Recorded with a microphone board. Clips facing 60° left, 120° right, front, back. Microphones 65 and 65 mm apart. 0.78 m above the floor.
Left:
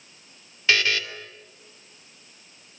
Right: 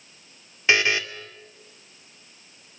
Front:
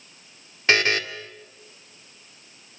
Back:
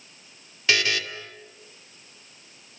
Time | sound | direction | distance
0.7 | a buzzer | 50° right | 2 m